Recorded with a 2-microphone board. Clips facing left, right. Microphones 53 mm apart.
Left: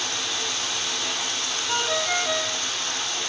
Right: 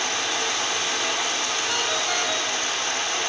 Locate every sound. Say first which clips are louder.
0.0 s running water: right 4 dB; 45° right (ahead or behind), 1.3 m
1.7 s a ringtone: left 4 dB; 5° left (ahead or behind), 4 m